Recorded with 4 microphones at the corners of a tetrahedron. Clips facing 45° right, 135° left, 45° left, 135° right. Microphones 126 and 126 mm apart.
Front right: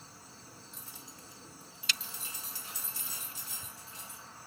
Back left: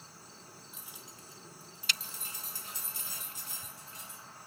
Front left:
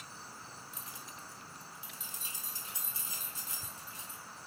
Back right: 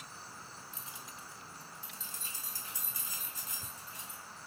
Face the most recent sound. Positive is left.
turn(degrees=100)